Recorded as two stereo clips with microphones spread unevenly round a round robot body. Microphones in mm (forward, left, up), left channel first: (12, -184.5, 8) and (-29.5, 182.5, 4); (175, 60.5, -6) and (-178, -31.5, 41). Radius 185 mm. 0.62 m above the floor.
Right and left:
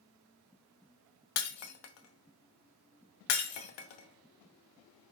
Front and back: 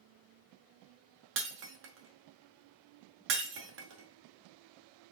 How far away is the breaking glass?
About 0.9 m.